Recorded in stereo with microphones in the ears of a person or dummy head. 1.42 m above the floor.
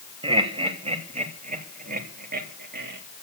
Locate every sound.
0.2 s laughter: 30° right (ahead or behind), 2.5 m; by 3.0 s 60° right (ahead or behind), 3 m